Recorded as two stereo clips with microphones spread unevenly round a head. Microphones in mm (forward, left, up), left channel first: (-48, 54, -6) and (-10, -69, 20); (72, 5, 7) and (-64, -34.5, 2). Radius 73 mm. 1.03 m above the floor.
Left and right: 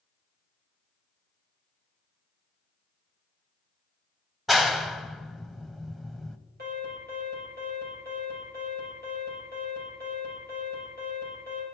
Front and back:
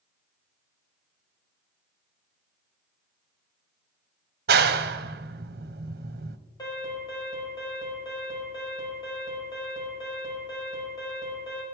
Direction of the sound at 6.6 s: 45° right.